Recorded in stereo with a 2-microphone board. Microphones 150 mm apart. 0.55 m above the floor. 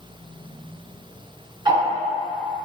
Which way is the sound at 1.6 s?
25° right (ahead or behind).